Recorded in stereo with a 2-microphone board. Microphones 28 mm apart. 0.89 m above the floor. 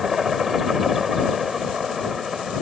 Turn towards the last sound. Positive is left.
turn(degrees=-10)  # may be behind; listen again after turning